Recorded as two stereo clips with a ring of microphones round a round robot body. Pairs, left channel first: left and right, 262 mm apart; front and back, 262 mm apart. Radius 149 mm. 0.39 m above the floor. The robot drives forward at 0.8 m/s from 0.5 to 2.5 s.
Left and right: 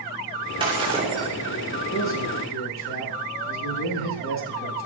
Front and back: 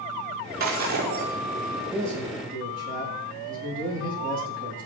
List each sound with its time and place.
0.6 s breaking glass: 160° right, 7.5 m
1.9 s a man speaking: 130° left, 9 m